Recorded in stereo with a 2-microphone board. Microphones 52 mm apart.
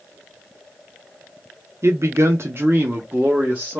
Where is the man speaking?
60° right (ahead or behind), 0.6 m; by 3.8 s 20° right (ahead or behind), 1.1 m.